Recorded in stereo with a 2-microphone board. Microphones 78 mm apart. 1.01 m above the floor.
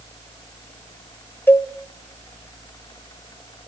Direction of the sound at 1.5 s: 25° left (ahead or behind).